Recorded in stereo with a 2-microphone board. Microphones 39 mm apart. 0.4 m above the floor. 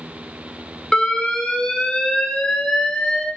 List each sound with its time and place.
0.9 s an alarm: 15° left (ahead or behind), 1.4 m